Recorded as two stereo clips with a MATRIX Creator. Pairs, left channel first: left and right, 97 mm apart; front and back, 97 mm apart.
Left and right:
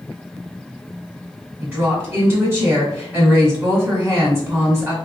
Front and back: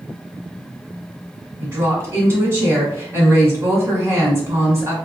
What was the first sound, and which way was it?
A woman speaking, 140° right.